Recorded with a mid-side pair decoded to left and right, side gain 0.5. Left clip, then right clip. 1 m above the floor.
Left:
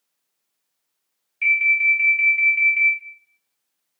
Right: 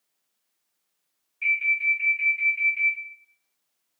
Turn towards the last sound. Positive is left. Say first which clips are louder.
# left 6 dB
turn(degrees=55)